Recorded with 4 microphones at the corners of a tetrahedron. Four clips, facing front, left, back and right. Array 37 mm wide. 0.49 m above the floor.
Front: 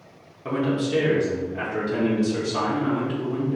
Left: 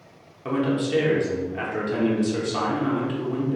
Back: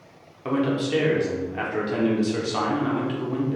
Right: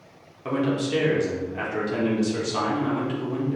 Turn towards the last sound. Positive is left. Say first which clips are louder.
# left 1 dB, even
turn(degrees=155)